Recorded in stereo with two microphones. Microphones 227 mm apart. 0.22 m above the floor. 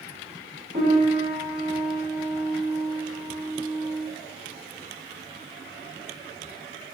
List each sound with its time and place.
0.7 s a piano: 30° right (ahead or behind), 1.2 m